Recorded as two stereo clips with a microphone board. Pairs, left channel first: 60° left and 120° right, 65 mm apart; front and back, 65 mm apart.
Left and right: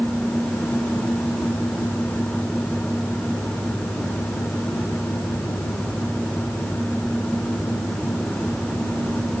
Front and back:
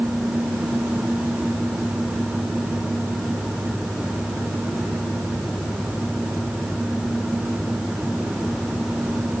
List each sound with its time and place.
Only background noise.